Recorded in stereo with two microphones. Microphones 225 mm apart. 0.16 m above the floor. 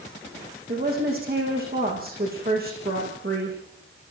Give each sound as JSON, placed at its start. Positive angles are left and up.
{"t": 0.7, "sound": "a woman speaking", "side_deg": -45, "distance_m": 9.5}